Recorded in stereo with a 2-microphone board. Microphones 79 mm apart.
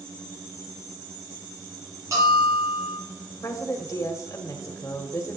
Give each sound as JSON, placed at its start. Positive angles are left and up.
{"t": 2.1, "sound": "a bell", "side_deg": -45, "distance_m": 6.5}
{"t": 3.4, "sound": "a woman speaking", "side_deg": 40, "distance_m": 1.8}